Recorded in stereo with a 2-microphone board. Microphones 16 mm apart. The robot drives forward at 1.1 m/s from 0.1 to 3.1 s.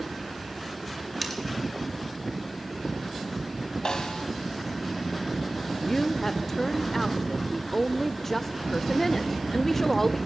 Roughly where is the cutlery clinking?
Centre.